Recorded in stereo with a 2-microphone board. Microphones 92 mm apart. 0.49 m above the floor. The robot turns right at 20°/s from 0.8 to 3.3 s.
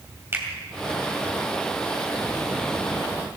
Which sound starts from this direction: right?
A finger snap, at 0.3 s.